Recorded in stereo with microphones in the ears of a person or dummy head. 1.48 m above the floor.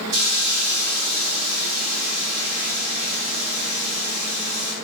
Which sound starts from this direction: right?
A hiss, at 0.1 s.